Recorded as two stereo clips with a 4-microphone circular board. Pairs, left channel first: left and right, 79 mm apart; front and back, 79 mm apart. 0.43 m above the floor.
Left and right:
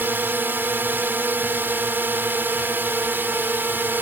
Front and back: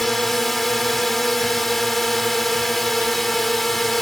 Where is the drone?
85° right.